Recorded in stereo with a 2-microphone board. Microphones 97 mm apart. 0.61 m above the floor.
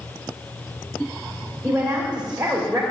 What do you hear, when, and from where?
1.6 s a woman speaking: 10° right (ahead or behind), 3 m